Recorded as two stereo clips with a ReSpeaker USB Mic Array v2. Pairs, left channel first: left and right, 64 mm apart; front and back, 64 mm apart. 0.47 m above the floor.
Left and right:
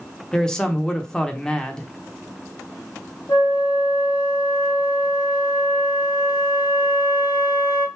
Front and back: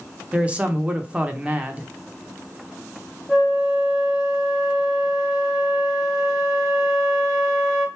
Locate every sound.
0.3 s a man speaking: 150° left, 0.7 m
3.3 s a flute: 85° left, 2.5 m